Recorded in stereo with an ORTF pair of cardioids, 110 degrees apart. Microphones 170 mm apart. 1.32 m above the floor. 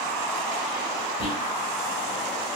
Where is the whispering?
30° left, 1.0 m.